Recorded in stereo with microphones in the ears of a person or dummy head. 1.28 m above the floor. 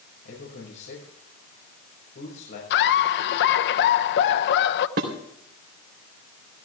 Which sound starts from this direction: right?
Dishes clattering, at 5.0 s.